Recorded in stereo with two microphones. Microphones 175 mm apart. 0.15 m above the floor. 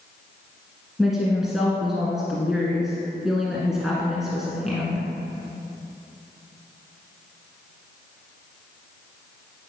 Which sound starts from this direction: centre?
A woman speaking, at 1.0 s.